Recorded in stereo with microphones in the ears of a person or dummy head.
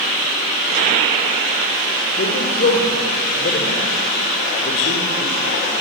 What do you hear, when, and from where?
2.2 s a man speaking: 55° left (ahead or behind), 4 m